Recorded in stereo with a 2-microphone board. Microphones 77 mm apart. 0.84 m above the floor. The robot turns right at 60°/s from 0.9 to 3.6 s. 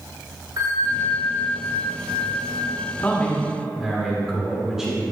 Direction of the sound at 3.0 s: 150° left.